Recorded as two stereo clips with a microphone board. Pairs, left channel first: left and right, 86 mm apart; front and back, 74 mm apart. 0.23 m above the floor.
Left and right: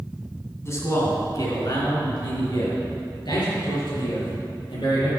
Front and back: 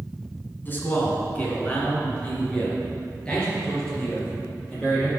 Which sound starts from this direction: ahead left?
A man speaking, at 0.6 s.